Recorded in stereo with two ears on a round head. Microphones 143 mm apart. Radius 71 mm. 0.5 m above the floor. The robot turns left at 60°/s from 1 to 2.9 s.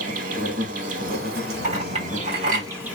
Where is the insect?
55° right, 0.8 m; by 3.0 s 170° right, 0.8 m.